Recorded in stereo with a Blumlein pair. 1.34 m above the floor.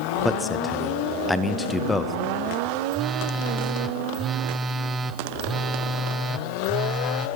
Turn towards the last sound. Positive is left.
turn(degrees=-15)